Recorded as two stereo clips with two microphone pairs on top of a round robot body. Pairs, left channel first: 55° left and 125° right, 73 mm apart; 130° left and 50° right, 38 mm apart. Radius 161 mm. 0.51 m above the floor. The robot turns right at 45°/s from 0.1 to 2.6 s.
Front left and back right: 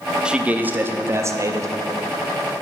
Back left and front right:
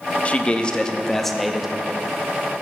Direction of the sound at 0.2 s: 160° left.